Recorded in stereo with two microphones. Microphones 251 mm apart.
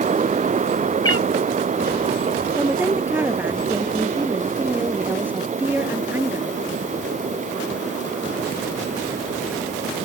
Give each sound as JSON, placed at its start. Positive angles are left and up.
{"t": 1.0, "sound": "a cat meowing", "side_deg": 65}
{"t": 2.6, "sound": "a woman speaking", "side_deg": -5}